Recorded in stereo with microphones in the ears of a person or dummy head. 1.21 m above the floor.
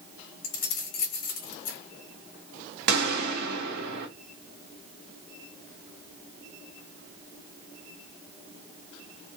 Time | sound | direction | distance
0.4 | keys jangling | 50° left (ahead or behind) | 1.0 m
2.9 | a gunshot | 60° right (ahead or behind) | 1.0 m